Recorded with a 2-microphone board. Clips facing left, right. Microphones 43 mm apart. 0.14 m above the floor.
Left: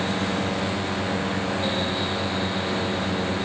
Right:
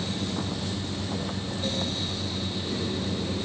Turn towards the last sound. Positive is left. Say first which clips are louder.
# left 6 dB
turn(degrees=85)